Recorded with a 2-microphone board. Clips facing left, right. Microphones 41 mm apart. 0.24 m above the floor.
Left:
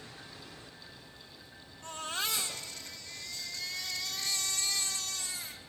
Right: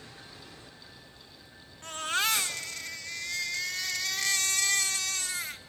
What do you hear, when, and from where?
1.8 s a baby crying: 75° right (ahead or behind), 1.3 m